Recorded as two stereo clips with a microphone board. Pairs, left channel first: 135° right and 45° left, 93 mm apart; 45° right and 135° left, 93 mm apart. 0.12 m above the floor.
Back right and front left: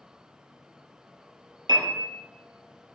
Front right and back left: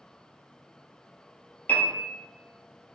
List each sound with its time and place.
1.7 s a piano: 20° left, 1.0 m